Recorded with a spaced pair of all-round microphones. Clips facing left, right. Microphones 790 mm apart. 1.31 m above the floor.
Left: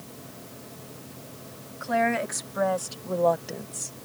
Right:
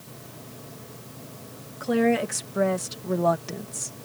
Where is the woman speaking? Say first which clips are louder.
Right 6 dB; 65° right (ahead or behind); by 4.0 s 25° right (ahead or behind).